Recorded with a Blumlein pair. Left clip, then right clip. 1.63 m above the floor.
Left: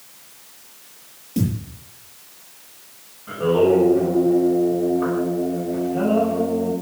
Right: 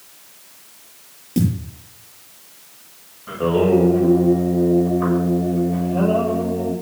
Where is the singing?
15° right, 7.5 m.